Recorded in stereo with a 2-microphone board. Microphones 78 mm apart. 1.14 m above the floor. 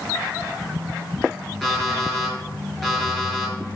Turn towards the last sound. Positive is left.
turn(degrees=5)  # may be behind; listen again after turning